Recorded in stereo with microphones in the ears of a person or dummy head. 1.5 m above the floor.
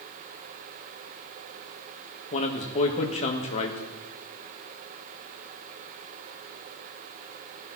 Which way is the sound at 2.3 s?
40° left (ahead or behind).